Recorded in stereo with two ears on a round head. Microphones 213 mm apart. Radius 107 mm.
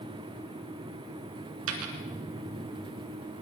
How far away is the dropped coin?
About 2.5 m.